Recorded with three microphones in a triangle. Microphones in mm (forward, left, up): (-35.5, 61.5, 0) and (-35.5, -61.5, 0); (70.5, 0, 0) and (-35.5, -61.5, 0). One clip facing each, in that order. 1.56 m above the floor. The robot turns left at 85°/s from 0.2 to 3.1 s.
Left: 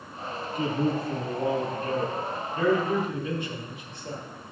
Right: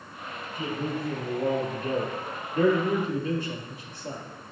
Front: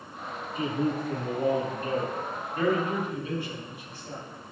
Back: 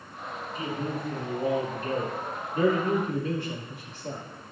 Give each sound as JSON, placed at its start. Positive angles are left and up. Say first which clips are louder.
{"t": 0.6, "sound": "a man speaking", "louder": "left 5 dB, front 5 dB", "azimuth_deg": 80, "distance_m": 3.5}